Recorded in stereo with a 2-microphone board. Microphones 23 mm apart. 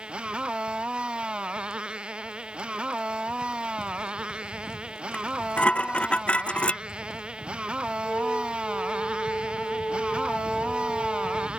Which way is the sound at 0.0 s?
45° right (ahead or behind).